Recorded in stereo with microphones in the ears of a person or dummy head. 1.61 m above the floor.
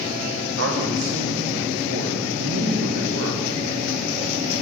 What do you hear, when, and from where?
0.6 s a man speaking: 75° right (ahead or behind), 1.2 m